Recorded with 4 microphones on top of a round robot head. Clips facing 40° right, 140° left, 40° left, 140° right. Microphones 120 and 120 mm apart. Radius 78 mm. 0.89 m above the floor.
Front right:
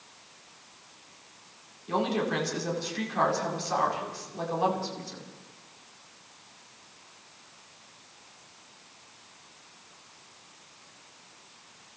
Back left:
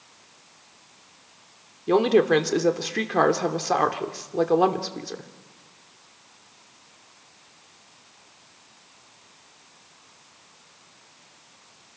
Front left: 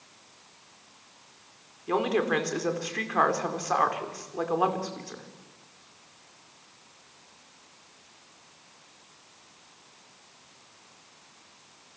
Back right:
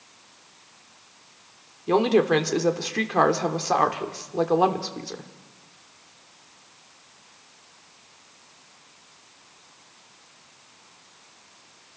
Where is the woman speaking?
160° left, 2.5 m.